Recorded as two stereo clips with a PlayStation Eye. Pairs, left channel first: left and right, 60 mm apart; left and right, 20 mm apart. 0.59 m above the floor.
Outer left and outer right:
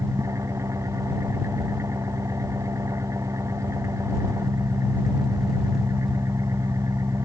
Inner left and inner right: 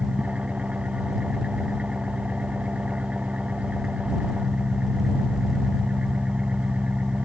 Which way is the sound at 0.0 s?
60° right (ahead or behind).